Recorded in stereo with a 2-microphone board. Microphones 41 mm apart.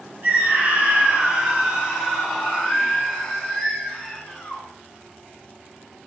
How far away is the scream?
About 3 m.